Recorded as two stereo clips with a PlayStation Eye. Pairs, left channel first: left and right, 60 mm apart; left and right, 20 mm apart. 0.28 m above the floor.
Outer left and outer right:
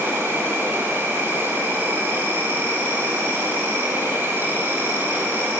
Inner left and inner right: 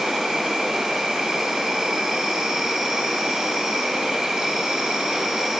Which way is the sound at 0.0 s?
40° right (ahead or behind).